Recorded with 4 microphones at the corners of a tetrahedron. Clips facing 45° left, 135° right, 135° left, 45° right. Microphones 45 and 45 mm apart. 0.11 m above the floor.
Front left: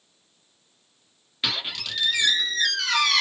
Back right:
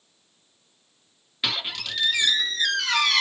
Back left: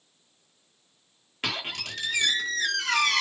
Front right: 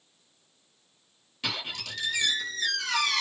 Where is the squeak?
135° left, 1.1 m.